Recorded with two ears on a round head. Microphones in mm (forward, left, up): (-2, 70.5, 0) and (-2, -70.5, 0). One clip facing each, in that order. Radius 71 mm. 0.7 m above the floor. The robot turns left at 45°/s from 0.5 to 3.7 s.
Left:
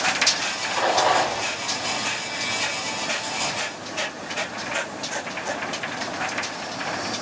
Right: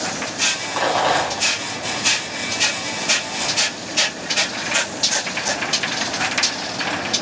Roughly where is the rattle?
Right.